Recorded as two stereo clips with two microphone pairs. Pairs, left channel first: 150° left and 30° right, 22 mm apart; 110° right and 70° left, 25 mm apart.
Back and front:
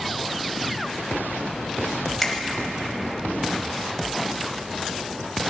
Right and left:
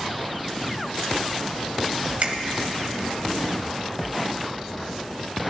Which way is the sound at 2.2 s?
75° left.